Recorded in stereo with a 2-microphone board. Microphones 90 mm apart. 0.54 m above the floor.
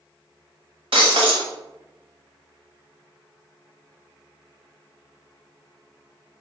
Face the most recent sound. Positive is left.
turn(degrees=-80)